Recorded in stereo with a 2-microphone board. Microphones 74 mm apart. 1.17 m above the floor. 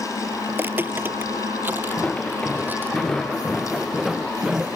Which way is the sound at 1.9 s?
15° left (ahead or behind).